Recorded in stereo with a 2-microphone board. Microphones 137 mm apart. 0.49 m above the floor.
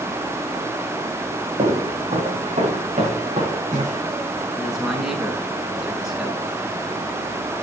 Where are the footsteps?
60° right (ahead or behind), 9.5 m.